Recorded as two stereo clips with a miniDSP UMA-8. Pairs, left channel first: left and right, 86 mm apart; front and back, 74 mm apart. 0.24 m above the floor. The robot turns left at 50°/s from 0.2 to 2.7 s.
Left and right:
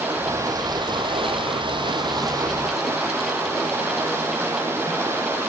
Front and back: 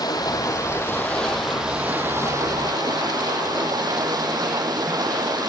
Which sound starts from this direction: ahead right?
Running water, at 0.0 s.